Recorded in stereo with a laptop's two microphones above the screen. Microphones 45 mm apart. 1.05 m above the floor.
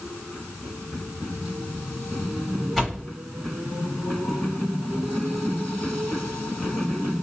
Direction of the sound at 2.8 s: Centre (ahead or behind).